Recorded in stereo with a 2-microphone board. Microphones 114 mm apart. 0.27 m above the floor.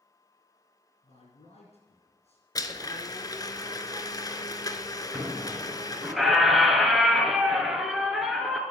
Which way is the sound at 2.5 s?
35° left (ahead or behind).